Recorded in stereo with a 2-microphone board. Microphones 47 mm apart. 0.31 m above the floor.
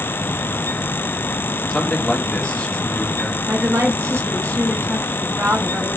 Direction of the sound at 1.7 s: 20° left (ahead or behind).